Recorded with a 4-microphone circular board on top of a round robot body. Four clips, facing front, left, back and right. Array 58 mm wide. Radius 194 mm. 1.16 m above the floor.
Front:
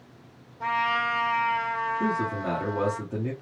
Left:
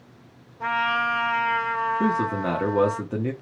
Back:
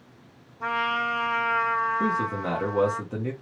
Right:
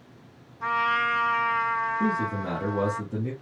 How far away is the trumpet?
About 1.1 m.